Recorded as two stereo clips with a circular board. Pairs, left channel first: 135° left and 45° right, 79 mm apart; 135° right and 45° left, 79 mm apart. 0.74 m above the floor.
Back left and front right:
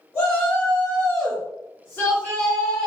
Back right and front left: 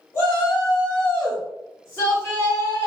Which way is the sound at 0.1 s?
175° left.